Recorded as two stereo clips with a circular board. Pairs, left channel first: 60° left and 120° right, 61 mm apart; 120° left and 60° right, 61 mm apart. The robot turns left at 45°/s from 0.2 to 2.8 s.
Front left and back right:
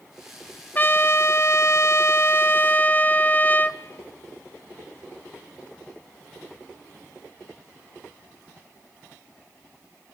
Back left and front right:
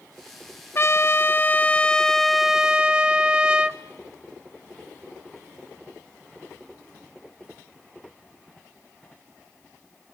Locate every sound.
0.8 s a trumpet: 100° left, 1.0 m; by 3.8 s 10° left, 1.0 m